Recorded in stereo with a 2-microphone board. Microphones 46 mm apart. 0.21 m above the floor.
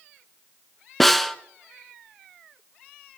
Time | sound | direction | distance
1.0 | a snare drum | 5° left (ahead or behind) | 0.5 m